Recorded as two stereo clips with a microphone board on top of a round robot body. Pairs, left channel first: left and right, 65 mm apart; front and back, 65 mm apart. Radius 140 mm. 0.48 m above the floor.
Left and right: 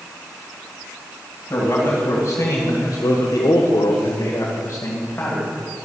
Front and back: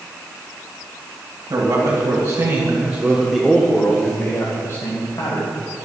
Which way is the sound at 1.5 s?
145° left.